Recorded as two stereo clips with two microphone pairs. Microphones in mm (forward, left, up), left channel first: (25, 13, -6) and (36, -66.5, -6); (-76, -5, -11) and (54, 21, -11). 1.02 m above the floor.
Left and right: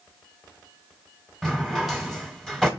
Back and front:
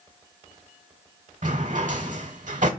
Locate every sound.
1.4 s a drawer: 10° left, 1.3 m